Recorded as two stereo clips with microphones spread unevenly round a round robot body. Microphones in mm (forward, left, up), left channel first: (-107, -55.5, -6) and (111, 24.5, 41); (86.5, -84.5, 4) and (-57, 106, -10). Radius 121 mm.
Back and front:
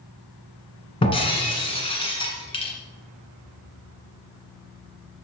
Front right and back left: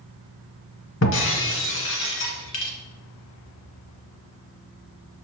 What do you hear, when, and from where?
1.0 s breaking glass: 85° right, 1.3 m